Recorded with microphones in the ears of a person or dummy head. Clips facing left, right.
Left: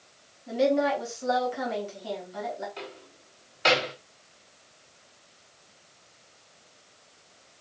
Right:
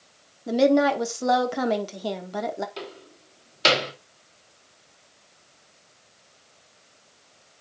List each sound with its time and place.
0.5 s a woman speaking: 70° right (ahead or behind), 1.2 m
2.8 s a door slam: 55° right (ahead or behind), 2.5 m